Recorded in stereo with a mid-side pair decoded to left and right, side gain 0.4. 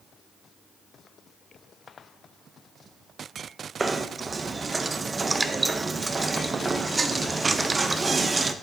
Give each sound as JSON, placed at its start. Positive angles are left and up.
{"t": 3.8, "sound": "knocking", "azimuth_deg": -30, "distance_m": 0.6}